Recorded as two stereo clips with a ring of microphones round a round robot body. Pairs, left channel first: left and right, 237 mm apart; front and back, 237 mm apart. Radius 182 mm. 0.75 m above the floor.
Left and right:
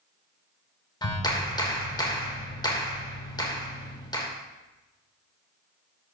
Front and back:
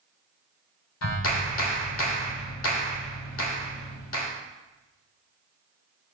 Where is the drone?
I don't hear a drone.